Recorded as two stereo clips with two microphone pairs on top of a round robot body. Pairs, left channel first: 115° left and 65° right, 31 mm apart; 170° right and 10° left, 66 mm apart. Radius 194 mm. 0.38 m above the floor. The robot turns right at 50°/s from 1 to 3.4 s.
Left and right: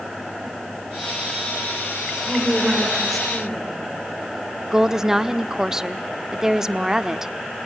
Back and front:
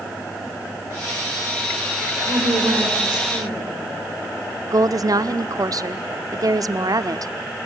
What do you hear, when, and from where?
2.3 s a woman speaking: 15° right, 6.5 m; by 3.8 s 40° left, 6.5 m
4.7 s a woman speaking: 5° left, 1.3 m